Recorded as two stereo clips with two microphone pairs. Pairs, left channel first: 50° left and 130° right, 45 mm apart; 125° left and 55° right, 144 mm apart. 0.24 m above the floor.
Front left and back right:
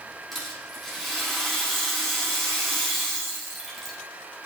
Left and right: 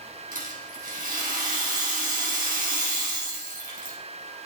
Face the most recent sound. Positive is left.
turn(degrees=-45)